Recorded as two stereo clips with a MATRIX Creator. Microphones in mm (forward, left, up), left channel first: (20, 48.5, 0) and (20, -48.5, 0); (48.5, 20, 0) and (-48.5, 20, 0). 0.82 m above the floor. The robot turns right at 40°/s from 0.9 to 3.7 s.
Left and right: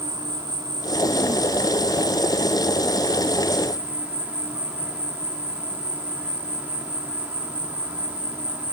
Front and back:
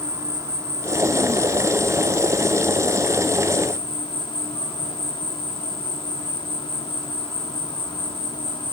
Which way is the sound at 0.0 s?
130° right.